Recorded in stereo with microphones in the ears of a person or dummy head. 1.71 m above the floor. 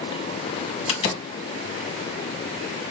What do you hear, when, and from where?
0.9 s a door slam: 35° left (ahead or behind), 1.1 m